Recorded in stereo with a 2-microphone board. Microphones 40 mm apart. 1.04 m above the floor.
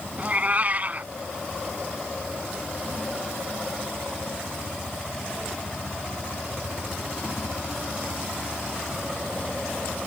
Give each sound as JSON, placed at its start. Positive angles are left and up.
{"t": 0.2, "sound": "a cat meowing", "side_deg": -35}